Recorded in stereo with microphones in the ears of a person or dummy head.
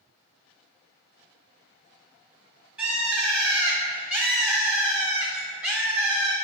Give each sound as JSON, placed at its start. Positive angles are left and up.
{"t": 2.8, "sound": "a bird", "side_deg": -5, "distance_m": 0.5}